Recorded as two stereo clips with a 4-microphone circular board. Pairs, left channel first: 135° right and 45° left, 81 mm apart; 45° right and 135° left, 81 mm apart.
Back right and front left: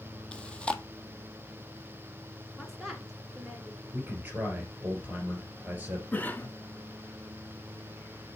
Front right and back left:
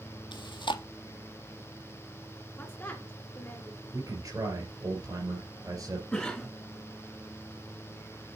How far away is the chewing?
About 0.7 m.